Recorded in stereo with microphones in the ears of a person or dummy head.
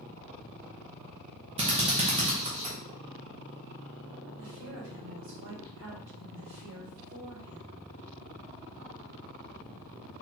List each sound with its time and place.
1.6 s a drill: 25° right (ahead or behind), 0.7 m
4.4 s a woman speaking: 80° right, 2.5 m